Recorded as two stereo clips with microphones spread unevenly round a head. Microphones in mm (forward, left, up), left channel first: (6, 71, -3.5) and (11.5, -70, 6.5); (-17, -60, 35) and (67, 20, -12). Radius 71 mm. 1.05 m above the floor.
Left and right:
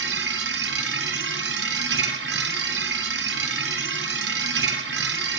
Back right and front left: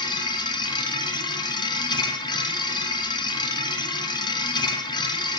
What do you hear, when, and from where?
0.0 s a machine running: 80° right, 1.6 m